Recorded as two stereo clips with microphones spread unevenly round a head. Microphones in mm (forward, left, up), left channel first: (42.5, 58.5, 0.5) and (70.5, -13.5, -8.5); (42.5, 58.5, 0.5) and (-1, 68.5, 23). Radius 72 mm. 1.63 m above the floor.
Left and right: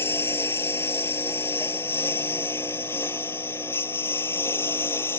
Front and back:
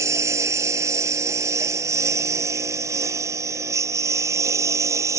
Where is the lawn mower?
175° right.